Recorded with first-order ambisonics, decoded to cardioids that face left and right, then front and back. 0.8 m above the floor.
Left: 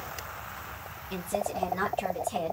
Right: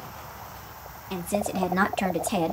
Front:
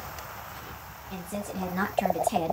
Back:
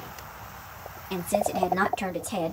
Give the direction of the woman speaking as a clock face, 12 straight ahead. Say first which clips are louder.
Right 3 dB, back 11 dB; 5 o'clock.